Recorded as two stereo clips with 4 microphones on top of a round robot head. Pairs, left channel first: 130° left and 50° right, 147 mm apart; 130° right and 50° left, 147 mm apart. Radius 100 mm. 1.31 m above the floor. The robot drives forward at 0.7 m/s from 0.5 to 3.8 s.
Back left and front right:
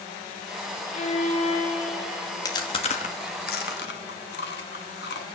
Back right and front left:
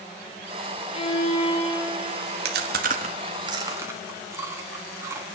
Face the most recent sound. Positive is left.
turn(degrees=120)